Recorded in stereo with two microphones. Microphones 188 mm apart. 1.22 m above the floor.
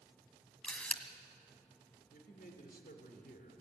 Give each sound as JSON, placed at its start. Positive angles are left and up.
{"t": 0.6, "sound": "a camera shutter", "side_deg": 5, "distance_m": 1.4}
{"t": 2.1, "sound": "a man speaking", "side_deg": 55, "distance_m": 3.0}